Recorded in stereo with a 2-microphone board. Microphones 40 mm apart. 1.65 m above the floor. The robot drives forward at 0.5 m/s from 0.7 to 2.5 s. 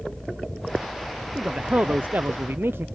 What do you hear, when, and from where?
1.4 s a man speaking: 35° right (ahead or behind); by 2.9 s 65° right (ahead or behind)